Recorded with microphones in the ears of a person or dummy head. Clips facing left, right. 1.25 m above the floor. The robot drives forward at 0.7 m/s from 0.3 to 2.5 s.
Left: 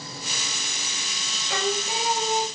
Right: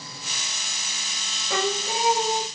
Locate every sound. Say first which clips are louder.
1.5 s singing: right 1 dB; 75° right (ahead or behind), 0.8 m; by 2.4 s 50° right (ahead or behind), 1.1 m